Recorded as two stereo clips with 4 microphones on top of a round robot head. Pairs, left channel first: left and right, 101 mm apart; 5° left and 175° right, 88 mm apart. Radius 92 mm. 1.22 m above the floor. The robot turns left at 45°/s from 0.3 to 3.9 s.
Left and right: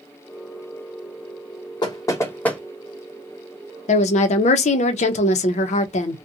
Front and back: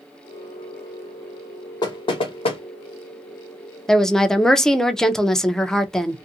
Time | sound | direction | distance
1.8 | knocking | 45° left | 0.8 m
3.9 | a woman speaking | 90° left | 0.5 m